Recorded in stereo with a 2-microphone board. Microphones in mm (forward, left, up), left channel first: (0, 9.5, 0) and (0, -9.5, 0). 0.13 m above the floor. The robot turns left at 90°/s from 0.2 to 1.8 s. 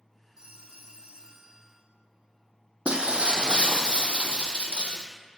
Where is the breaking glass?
80° right, 0.7 m.